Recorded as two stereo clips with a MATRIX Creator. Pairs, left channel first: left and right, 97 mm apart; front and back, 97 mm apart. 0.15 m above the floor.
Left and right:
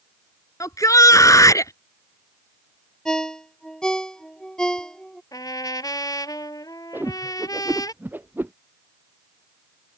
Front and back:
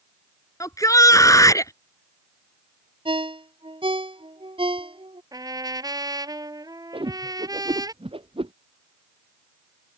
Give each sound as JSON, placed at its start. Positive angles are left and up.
{"t": 0.6, "sound": "a shout", "azimuth_deg": 45}
{"t": 3.0, "sound": "a ringtone", "azimuth_deg": 170}
{"t": 5.3, "sound": "a trumpet", "azimuth_deg": 135}
{"t": 6.9, "sound": "a whoosh", "azimuth_deg": -160}